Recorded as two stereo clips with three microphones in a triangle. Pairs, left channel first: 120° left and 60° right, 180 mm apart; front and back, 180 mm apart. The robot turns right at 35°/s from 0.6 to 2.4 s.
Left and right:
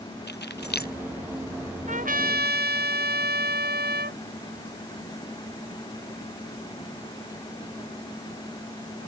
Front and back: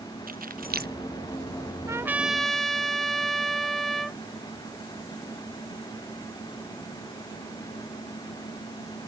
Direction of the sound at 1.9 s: 105° right.